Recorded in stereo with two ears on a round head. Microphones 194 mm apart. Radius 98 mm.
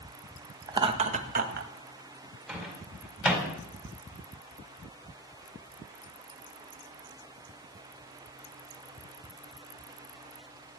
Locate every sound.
0.7 s laughter: 20° right (ahead or behind), 1.6 m; by 1.7 s 45° right (ahead or behind), 2.5 m
2.5 s a microwave: centre (ahead or behind), 4.5 m